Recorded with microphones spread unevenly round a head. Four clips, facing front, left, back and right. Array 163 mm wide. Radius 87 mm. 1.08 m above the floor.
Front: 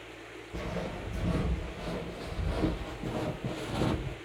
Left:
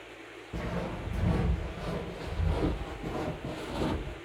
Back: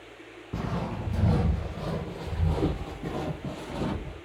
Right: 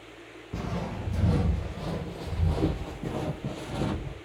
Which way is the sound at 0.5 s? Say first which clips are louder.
Right 1 dB, back 4 dB; 145° right.